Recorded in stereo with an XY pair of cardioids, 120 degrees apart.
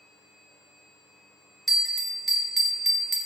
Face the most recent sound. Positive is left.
turn(degrees=0)